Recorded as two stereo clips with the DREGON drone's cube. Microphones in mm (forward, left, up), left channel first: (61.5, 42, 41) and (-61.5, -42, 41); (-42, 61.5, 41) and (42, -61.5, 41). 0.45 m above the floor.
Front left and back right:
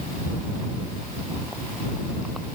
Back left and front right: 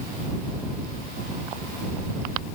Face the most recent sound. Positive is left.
No sound to turn to.